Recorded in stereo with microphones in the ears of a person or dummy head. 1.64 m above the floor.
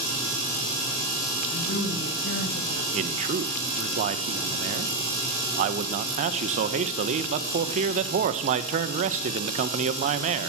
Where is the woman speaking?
90° left, 9.5 m.